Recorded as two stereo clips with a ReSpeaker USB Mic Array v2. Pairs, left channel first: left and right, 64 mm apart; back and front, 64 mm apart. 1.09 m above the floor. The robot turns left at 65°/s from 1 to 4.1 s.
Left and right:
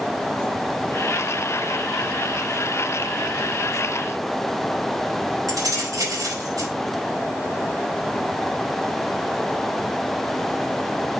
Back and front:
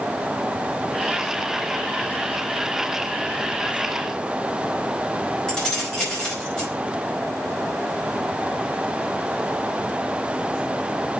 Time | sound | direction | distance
5.5 | keys jangling | 100° right | 5 m